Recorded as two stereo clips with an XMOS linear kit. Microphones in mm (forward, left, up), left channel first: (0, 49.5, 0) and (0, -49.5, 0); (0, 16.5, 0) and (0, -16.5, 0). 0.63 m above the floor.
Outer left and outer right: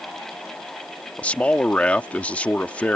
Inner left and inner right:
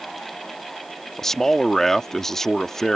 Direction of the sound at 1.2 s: 15° left (ahead or behind).